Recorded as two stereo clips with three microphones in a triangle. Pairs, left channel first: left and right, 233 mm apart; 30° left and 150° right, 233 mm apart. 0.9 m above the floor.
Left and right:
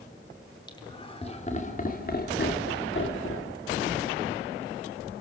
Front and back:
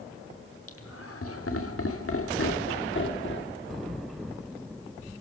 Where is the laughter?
20° left, 3 m; by 3.6 s 70° left, 3 m.